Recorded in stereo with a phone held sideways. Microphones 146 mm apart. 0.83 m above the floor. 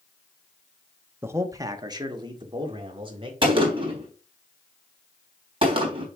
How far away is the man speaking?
About 0.9 m.